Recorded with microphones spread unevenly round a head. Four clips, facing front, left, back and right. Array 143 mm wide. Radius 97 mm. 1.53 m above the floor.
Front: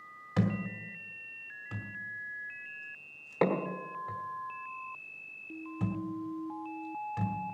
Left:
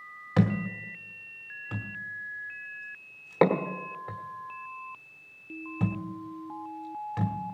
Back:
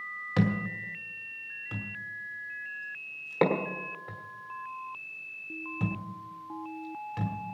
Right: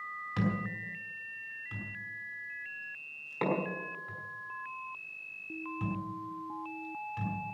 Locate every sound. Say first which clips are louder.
0.4 s a thud: left 7 dB, back 3 dB; 75° left, 1.4 m